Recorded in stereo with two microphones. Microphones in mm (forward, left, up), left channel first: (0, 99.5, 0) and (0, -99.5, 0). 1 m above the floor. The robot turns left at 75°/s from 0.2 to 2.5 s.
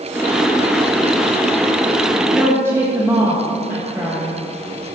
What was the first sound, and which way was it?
A woman speaking, 5° right (ahead or behind).